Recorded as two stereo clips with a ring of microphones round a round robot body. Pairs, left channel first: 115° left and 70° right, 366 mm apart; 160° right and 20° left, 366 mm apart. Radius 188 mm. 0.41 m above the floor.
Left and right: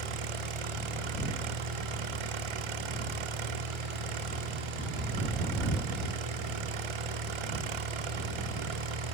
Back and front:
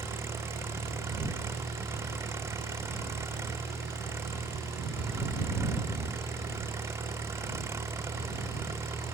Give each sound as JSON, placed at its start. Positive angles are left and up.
{"t": 0.0, "sound": "an engine running", "azimuth_deg": -60}